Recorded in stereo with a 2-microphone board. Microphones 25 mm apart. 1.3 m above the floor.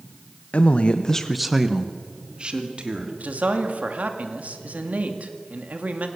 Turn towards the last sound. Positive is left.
turn(degrees=-85)